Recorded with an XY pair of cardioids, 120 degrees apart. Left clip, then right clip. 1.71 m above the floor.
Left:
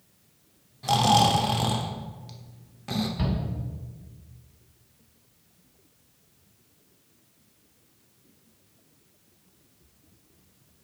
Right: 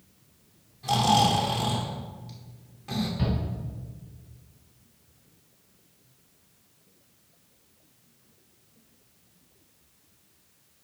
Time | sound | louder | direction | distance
0.8 | snoring | left 2 dB | 35° left | 1.0 m
3.2 | a shout | even | 35° left | 3.5 m